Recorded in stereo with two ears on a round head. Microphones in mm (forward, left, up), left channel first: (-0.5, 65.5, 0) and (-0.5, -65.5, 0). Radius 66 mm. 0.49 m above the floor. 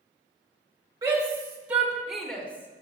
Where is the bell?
No bell in this recording.